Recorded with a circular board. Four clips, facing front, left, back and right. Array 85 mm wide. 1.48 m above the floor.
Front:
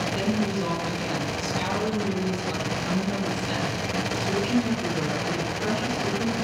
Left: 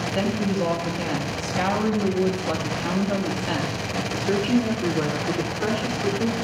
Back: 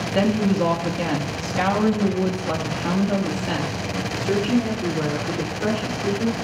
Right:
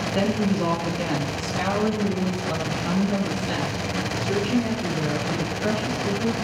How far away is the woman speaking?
About 2.5 m.